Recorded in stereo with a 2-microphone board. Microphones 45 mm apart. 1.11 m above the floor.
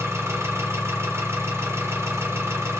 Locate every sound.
0.0 s an engine running: 75° right (ahead or behind), 0.9 m